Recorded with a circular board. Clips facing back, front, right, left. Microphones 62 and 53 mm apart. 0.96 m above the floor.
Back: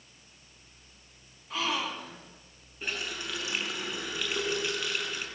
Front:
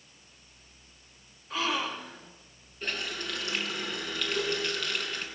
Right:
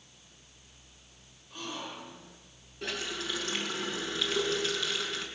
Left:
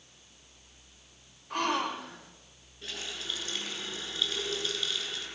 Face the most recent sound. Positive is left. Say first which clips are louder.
# front 1 dB, right 4 dB
turn(degrees=-100)